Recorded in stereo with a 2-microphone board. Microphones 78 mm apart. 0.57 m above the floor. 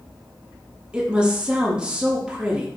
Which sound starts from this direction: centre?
A woman speaking, at 0.9 s.